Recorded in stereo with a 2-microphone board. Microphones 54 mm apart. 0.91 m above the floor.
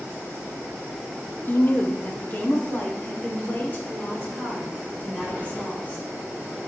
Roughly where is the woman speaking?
Left.